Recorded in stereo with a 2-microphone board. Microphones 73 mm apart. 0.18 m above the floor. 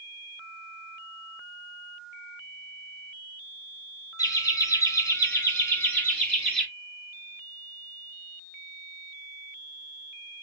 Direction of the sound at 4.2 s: 50° left (ahead or behind).